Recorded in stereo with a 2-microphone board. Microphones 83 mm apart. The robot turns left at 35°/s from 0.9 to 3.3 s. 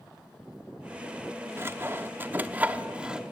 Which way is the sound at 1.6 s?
30° right (ahead or behind).